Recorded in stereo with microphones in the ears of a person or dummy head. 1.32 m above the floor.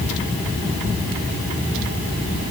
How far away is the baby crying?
No baby crying in this recording.